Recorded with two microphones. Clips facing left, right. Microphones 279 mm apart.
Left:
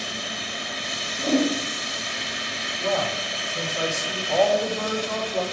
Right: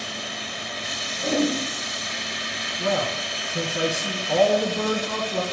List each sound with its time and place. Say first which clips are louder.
1.2 s a whoosh: left 1 dB; 80° right, 4 m
2.8 s a man speaking: right 1 dB; 65° right (ahead or behind), 1.5 m